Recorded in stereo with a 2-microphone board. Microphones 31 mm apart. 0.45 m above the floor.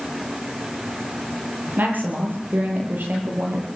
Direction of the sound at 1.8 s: 85° right.